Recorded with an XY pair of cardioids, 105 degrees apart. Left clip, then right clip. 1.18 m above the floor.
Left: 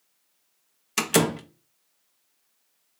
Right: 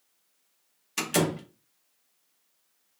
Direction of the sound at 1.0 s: 40° left.